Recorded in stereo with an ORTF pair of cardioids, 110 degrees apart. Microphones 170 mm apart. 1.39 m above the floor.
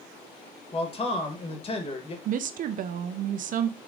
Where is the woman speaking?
55° right, 0.5 m.